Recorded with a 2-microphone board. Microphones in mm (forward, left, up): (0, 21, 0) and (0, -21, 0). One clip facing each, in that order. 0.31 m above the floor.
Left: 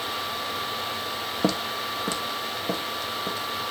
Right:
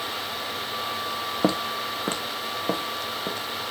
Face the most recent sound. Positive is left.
turn(degrees=-50)  # may be behind; listen again after turning